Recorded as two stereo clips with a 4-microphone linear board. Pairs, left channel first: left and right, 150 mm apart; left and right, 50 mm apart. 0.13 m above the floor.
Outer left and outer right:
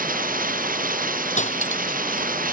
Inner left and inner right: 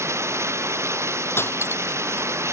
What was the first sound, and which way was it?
Running water, 80° right.